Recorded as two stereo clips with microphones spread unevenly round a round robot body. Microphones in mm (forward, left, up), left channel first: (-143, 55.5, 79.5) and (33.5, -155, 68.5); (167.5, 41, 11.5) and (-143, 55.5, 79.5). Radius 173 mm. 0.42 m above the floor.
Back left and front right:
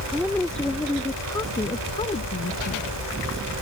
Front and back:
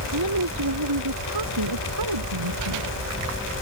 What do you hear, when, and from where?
0.1 s a woman speaking: 140° right; by 2.9 s 175° right